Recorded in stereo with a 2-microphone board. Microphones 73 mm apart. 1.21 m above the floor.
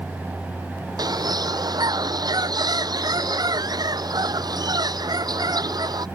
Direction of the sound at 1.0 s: 65° right (ahead or behind).